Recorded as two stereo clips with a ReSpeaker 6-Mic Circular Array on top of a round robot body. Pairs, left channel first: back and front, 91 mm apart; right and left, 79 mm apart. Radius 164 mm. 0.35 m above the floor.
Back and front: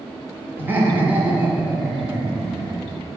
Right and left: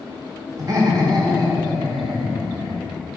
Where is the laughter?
65° left, 1.8 m; by 3.0 s 80° left, 3 m.